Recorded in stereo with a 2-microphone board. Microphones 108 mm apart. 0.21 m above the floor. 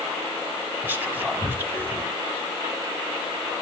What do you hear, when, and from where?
0.8 s whispering: 20° right (ahead or behind), 1.0 m